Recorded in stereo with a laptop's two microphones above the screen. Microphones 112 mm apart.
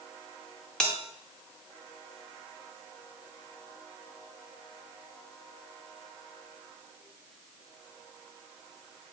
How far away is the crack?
No crack in this recording.